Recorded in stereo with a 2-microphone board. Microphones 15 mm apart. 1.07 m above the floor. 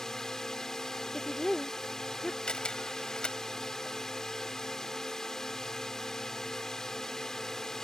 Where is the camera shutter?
70° left (ahead or behind).